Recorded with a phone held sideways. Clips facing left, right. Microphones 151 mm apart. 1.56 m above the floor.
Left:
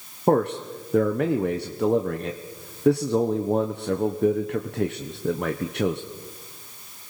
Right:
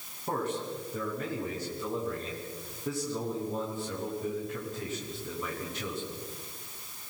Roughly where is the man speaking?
Left.